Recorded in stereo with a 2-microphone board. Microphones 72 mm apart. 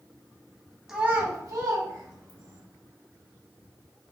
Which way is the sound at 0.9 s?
5° right (ahead or behind).